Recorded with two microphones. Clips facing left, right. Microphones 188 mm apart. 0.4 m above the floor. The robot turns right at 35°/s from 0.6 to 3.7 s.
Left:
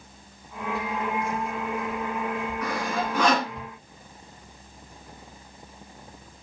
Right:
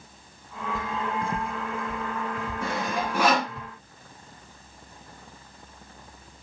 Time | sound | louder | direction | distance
0.8 | footsteps | left 2 dB | 50° right (ahead or behind) | 0.5 m
2.6 | sawing | right 1 dB | 30° right (ahead or behind) | 3.5 m